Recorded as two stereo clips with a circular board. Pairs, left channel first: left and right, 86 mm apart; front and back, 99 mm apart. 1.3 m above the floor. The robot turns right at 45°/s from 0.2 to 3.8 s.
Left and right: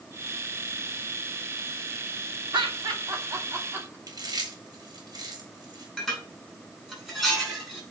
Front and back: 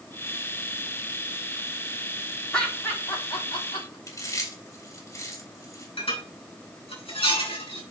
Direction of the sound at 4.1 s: 55° right.